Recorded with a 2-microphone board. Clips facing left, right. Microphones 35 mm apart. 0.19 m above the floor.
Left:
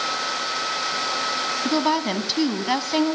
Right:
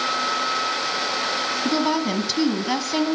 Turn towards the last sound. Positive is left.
turn(degrees=10)  # may be behind; listen again after turning